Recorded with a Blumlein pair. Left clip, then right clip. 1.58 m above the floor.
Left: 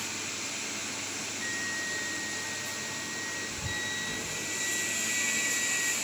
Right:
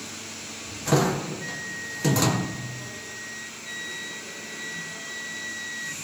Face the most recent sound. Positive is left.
turn(degrees=0)